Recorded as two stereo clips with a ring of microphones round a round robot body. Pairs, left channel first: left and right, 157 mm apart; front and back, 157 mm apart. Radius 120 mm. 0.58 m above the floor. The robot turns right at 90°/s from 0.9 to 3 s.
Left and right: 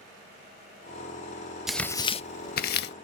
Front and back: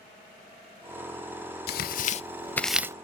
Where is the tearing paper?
5° right, 0.6 m; by 3.0 s 110° left, 0.6 m.